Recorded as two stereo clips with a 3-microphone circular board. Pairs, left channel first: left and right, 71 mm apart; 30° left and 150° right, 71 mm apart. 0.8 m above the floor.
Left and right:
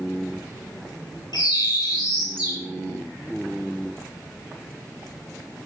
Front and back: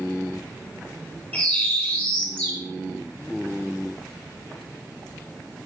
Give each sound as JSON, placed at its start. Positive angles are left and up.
{"t": 1.3, "sound": "a bird", "azimuth_deg": 95, "distance_m": 6.0}